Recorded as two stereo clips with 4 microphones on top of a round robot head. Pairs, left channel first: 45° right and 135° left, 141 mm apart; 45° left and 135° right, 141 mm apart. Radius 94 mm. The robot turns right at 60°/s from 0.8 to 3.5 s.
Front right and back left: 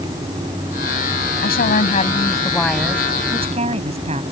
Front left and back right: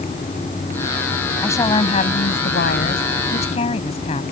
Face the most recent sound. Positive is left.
turn(degrees=90)